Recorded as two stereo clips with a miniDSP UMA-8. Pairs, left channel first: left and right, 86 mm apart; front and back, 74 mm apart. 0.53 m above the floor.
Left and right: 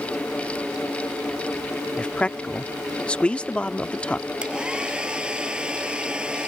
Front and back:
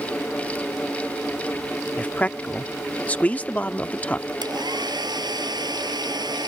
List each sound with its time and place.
2.0 s a man speaking: 35° left
4.4 s a hair dryer: 170° right